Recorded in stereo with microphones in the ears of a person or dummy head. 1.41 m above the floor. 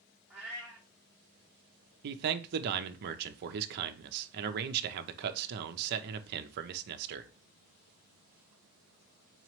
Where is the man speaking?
55° right (ahead or behind), 0.5 m.